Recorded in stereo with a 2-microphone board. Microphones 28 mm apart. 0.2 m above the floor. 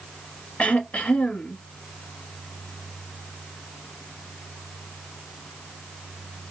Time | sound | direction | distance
0.6 | throat clearing | 55° left (ahead or behind) | 1.0 m